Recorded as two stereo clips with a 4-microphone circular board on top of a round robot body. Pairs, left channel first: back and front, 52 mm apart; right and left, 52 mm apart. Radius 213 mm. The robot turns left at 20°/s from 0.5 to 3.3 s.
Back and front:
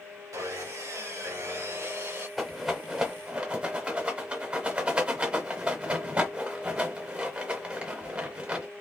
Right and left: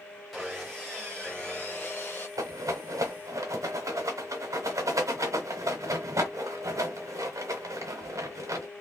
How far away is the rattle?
About 0.9 m.